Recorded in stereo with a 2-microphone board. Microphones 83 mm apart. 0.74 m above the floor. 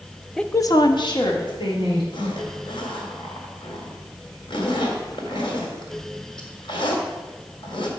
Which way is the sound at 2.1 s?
80° left.